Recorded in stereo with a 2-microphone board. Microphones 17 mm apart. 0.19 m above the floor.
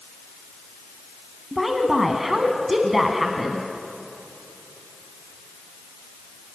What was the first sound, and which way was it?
A woman speaking, 10° right (ahead or behind).